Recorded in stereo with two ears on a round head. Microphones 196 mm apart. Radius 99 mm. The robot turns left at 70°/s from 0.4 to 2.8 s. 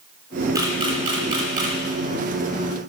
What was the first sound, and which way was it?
A camera shutter, 15° right (ahead or behind).